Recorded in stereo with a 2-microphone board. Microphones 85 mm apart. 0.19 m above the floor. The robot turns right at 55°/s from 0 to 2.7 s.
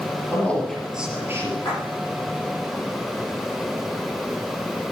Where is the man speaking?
155° left, 4 m; by 1.6 s 140° right, 4 m.